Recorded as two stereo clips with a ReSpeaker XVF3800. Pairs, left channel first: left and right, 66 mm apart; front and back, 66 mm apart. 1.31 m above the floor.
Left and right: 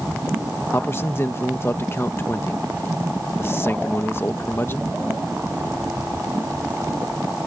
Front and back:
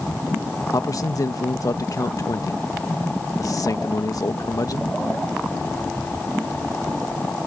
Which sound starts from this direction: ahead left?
A man speaking, at 0.7 s.